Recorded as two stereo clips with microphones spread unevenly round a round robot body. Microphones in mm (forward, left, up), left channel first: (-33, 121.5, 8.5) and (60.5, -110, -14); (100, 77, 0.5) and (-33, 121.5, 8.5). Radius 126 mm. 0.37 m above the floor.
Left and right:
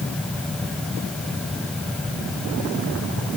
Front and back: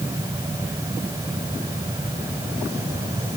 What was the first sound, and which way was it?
Only background noise.